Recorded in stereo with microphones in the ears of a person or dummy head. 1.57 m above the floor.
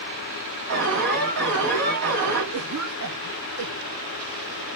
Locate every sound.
0.7 s an alarm: 60° right (ahead or behind), 8 m
2.5 s a cough: 85° right, 3 m